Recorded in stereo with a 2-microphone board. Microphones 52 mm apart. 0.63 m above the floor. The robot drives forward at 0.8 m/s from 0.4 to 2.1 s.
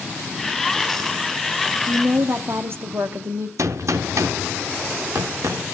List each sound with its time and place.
1.9 s a woman speaking: 50° right (ahead or behind), 0.7 m; by 3.5 s 45° right (ahead or behind), 0.7 m
3.6 s a gunshot: 70° right (ahead or behind), 0.8 m